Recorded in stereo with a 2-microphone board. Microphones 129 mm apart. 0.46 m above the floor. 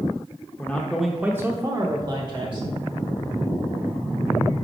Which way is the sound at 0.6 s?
15° left (ahead or behind).